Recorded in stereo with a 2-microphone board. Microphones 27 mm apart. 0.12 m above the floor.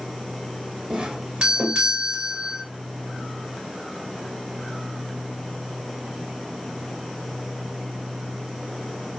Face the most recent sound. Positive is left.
turn(degrees=-35)  # may be behind; listen again after turning